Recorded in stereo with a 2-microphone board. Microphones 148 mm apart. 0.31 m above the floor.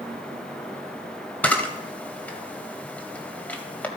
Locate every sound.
1.4 s a camera shutter: 10° left (ahead or behind), 1.8 m